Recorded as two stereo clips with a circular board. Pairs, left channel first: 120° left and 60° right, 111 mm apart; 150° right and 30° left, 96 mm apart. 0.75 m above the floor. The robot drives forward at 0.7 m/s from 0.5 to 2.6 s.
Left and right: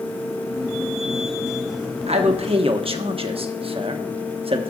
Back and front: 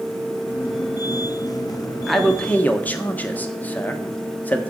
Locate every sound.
2.1 s a man speaking: 60° right, 1.1 m; by 4.7 s 80° right, 1.0 m